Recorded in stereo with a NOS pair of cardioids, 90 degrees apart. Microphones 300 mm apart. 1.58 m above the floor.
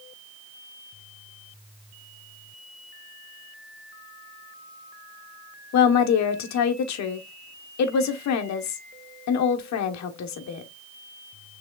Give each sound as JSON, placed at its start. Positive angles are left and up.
{"t": 5.7, "sound": "a woman speaking", "azimuth_deg": 65, "distance_m": 1.1}